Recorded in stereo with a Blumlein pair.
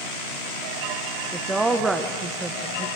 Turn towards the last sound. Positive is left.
turn(degrees=-10)